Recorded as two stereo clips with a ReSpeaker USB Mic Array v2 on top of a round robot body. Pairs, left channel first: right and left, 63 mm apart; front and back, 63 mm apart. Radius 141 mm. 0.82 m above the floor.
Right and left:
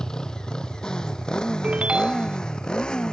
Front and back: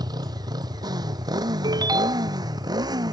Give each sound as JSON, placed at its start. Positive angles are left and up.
{"t": 0.0, "sound": "a motorcycle", "azimuth_deg": -170}
{"t": 1.6, "sound": "a ringtone", "azimuth_deg": 165}